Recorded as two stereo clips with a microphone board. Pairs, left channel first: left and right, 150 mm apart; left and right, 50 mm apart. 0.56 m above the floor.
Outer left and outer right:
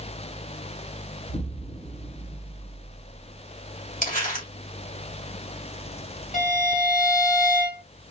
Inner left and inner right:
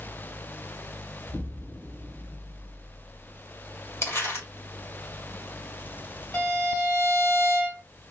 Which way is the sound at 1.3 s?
65° left (ahead or behind).